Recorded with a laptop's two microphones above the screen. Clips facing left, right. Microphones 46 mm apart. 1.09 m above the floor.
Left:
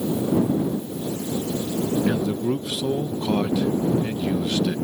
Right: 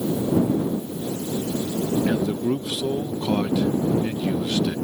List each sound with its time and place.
2.1 s a man speaking: centre (ahead or behind)